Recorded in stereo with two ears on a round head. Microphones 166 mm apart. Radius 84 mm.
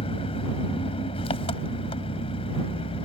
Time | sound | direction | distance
0.0 | an engine running | 30° left (ahead or behind) | ?